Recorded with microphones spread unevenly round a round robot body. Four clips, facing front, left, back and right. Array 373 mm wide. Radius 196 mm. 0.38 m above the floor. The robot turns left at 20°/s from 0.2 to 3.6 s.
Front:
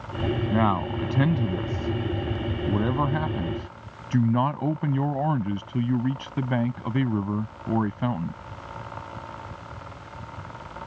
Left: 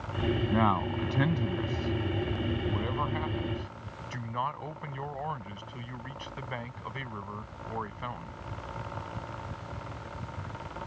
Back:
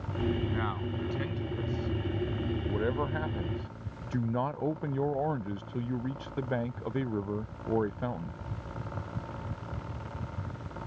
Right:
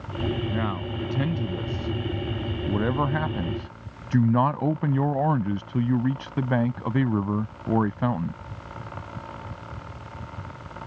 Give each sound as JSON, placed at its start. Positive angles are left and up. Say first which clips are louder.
{"t": 0.5, "sound": "a man speaking", "louder": "left 2 dB, front 10 dB", "azimuth_deg": 10}